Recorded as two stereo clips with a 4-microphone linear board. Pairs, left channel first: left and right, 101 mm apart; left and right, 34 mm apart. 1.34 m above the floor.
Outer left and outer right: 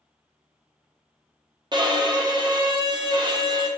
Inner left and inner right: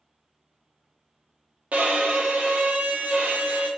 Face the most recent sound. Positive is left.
turn(degrees=-45)  # may be behind; listen again after turning